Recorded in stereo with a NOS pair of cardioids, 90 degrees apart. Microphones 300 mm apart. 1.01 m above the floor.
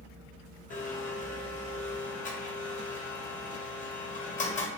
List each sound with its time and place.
0.7 s a blender: 25° left, 0.9 m